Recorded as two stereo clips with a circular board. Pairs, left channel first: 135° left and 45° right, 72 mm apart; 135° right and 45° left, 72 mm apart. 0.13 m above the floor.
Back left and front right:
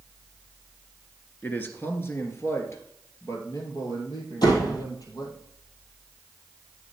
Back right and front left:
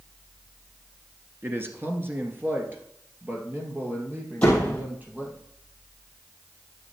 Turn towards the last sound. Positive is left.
turn(degrees=150)